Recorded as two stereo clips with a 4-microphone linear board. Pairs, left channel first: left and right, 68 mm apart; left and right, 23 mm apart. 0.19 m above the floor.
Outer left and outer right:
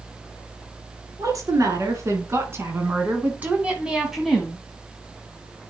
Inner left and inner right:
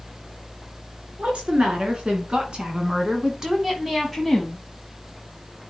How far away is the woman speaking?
About 2 m.